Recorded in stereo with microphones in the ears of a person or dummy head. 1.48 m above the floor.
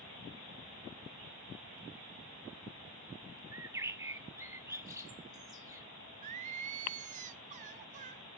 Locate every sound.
3.5 s a bird: 15° right (ahead or behind), 0.7 m
6.2 s singing: 40° right (ahead or behind), 1.0 m